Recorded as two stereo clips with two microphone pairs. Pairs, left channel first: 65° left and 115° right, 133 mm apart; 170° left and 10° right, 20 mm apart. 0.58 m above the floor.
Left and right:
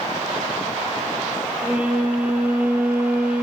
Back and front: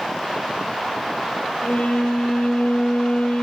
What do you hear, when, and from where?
1.6 s a violin: 165° left, 4.5 m